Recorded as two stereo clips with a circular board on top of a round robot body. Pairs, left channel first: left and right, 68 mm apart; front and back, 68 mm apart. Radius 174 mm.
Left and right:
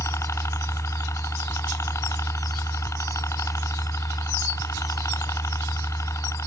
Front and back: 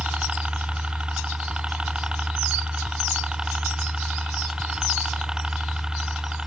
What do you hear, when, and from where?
0.0 s a helicopter: 110° left; by 6.5 s 105° left